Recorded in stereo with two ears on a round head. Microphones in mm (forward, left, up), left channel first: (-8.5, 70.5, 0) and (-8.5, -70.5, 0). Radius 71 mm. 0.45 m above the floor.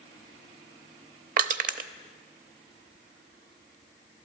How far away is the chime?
No chime in this recording.